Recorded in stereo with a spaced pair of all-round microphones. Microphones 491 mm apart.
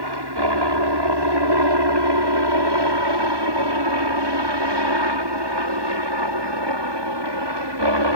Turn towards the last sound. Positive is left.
turn(degrees=-55)  # may be behind; listen again after turning